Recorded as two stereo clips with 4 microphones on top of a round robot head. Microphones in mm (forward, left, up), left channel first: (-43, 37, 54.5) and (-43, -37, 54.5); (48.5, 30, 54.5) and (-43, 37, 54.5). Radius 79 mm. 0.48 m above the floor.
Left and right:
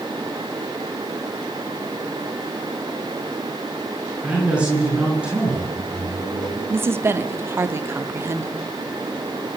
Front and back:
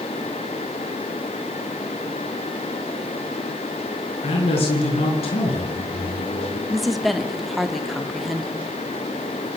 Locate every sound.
4.2 s a man speaking: 15° right, 7 m
6.7 s a woman speaking: 95° right, 1.4 m